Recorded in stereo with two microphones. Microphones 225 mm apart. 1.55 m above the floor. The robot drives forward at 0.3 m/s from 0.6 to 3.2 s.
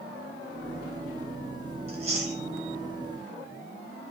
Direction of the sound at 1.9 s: 25° right (ahead or behind).